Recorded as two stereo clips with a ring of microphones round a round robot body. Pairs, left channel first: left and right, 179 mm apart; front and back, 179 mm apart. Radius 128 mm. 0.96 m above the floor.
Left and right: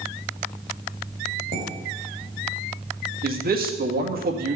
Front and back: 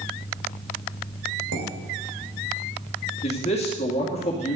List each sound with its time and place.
1.5 s dishes clattering: 155° right, 3 m
3.2 s a man speaking: 60° right, 2 m